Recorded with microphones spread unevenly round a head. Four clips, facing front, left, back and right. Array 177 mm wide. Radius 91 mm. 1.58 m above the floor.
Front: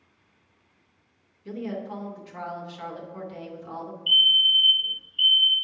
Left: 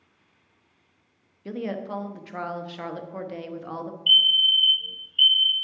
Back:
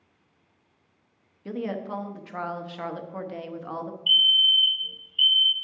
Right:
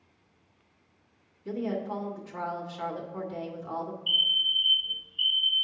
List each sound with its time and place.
1.4 s a woman speaking: 125° left, 0.9 m
4.1 s a fire alarm: 75° left, 0.7 m